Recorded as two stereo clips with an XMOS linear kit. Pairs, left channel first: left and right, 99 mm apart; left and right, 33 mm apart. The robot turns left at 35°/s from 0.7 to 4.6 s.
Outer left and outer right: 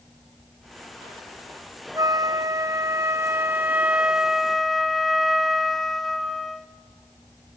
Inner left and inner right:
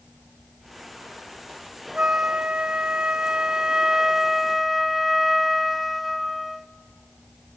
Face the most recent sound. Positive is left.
turn(degrees=180)